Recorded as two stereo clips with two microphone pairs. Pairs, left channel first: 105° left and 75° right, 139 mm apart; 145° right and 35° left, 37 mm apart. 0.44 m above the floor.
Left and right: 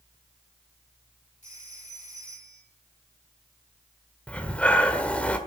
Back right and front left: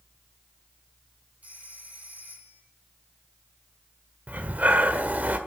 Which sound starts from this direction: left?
A phone ringing, at 1.4 s.